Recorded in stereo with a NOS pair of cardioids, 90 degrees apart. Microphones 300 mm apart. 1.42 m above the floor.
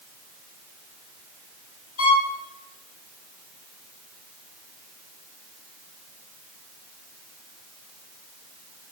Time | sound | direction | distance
2.0 | a violin | 50° left | 3.5 m